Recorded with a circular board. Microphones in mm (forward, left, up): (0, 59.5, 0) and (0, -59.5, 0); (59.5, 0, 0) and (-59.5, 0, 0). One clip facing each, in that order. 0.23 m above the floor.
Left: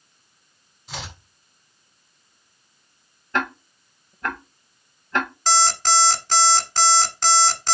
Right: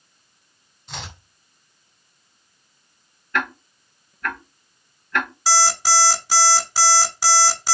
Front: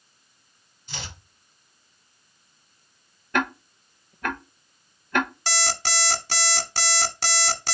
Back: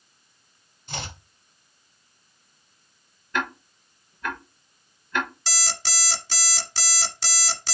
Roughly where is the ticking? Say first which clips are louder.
Left 1 dB, front 3 dB; ahead left.